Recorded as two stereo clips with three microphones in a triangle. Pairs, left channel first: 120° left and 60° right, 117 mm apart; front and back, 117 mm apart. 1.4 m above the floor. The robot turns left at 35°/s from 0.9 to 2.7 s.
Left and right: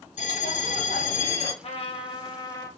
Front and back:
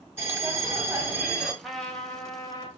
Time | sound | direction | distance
0.2 | a bell | 115° left | 1.3 m
1.6 | a trumpet | 90° left | 0.8 m